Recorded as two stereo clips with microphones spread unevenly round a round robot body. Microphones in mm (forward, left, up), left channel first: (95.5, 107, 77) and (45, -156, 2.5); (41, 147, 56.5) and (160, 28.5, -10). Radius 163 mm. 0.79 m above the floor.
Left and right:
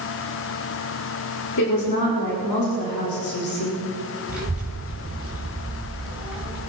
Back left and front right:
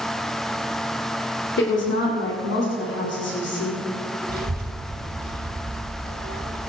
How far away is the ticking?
I don't hear ticking.